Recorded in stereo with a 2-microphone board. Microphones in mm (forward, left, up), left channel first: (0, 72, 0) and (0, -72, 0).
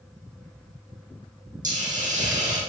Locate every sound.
1.6 s a hiss: 60° right (ahead or behind), 4 m